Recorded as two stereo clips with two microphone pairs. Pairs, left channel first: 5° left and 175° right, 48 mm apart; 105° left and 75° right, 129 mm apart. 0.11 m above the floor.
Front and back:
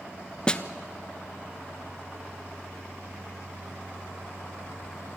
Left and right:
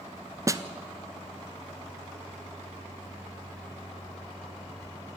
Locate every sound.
0.5 s a snare drum: 45° right, 0.8 m